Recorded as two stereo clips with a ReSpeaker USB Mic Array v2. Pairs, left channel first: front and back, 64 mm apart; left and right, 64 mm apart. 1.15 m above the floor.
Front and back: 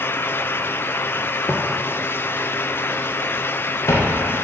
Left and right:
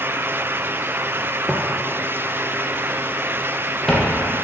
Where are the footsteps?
20° right, 1.2 m; by 4.2 s 10° left, 2 m.